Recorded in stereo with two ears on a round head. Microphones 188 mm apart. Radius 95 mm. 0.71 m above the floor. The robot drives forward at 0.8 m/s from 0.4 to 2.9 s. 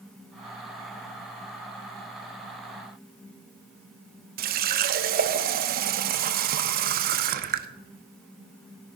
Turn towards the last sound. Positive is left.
turn(degrees=-50)  # may be behind; listen again after turning